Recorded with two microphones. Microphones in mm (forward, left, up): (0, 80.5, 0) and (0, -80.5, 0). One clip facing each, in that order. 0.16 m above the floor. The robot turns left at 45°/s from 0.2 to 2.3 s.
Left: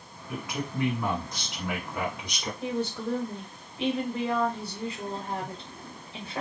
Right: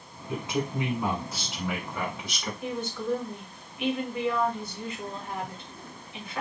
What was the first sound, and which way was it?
A man speaking, 120° right.